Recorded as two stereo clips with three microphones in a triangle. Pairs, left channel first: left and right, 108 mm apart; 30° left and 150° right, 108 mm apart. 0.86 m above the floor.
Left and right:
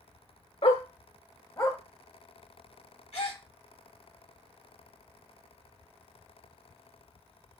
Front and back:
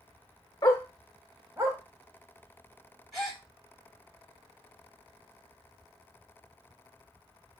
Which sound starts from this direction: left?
A dog barking, at 0.6 s.